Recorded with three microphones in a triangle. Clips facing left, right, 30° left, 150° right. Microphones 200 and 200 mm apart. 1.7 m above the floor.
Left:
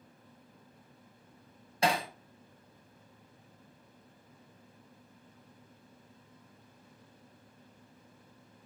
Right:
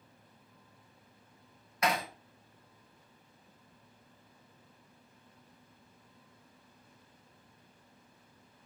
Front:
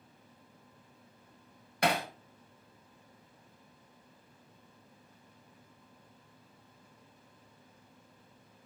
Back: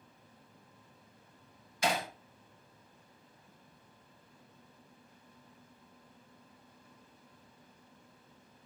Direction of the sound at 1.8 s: 35° left.